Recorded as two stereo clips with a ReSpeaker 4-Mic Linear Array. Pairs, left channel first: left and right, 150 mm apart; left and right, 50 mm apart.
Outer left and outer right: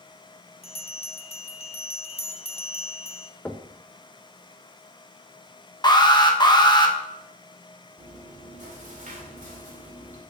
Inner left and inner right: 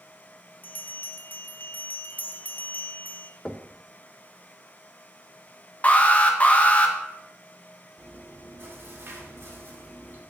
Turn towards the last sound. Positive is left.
turn(degrees=-55)  # may be behind; listen again after turning